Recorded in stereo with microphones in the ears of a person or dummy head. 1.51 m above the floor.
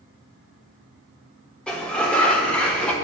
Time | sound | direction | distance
1.7 | a sliding door | 5° left (ahead or behind) | 0.7 m